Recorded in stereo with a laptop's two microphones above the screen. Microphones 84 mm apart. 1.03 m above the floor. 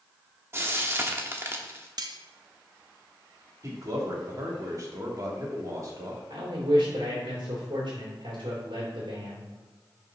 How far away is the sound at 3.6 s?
About 2 m.